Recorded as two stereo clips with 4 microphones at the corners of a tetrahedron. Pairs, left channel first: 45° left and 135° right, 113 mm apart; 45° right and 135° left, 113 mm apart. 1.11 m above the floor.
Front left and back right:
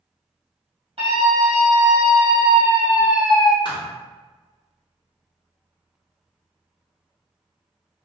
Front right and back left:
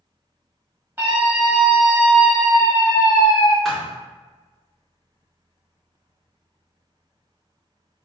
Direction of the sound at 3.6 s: 40° left.